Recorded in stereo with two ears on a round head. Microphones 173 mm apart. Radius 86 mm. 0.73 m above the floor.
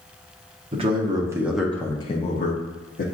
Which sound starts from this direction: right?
A man speaking, at 0.7 s.